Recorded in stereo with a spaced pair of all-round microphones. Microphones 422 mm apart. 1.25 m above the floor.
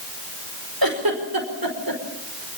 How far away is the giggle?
About 5 m.